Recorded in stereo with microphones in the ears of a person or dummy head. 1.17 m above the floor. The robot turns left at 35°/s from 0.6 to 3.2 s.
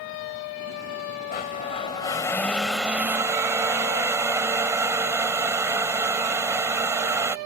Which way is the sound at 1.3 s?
50° left.